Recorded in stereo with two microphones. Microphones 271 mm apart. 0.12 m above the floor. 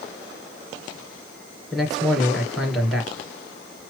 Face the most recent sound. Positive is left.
turn(degrees=0)  # may be behind; listen again after turning